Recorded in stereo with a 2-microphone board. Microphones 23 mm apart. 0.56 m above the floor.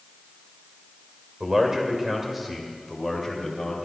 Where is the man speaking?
25° right (ahead or behind), 2.5 m; by 3.9 s 15° left (ahead or behind), 3 m.